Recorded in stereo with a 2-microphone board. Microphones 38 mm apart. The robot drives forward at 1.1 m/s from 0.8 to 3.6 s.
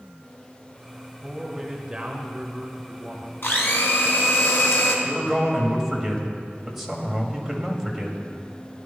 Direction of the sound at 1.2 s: 15° right (ahead or behind).